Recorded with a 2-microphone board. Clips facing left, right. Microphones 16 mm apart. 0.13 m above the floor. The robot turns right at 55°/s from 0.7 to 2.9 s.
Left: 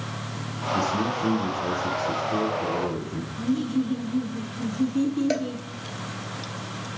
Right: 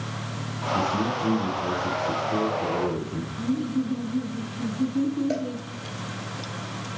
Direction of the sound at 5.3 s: 40° left (ahead or behind).